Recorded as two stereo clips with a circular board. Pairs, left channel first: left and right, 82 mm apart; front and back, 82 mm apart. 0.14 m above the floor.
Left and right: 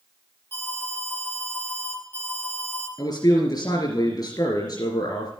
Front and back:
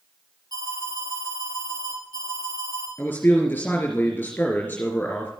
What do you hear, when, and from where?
0.5 s an alarm: 150° left, 5 m
3.0 s a man speaking: 65° left, 3 m